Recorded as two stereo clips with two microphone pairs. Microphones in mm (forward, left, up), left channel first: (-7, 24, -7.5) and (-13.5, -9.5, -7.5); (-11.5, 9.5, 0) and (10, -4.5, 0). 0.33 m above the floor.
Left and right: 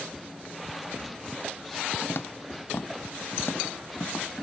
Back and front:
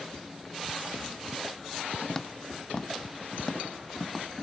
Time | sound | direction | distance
2.1 | footsteps | 80° left | ?